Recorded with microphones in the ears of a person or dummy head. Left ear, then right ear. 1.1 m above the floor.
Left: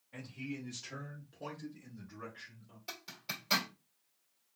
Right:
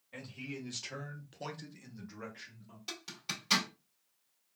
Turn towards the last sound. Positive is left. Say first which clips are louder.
# right 2 dB
turn(degrees=-15)  # may be behind; listen again after turning